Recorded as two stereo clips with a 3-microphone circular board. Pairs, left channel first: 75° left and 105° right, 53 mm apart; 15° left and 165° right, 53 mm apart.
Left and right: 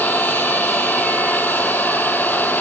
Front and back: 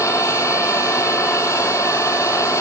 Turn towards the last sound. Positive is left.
turn(degrees=20)